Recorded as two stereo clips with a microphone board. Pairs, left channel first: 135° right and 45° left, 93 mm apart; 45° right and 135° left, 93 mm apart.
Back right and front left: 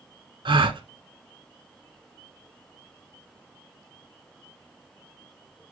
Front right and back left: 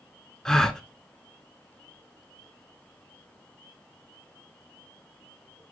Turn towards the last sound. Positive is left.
turn(degrees=40)